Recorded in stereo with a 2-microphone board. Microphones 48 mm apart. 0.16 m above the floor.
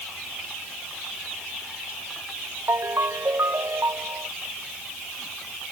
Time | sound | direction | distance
2.7 | a ringtone | 75° right (ahead or behind) | ?